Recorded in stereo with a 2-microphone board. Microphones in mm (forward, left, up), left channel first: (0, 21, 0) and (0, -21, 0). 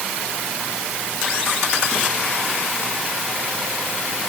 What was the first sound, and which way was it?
Only background noise.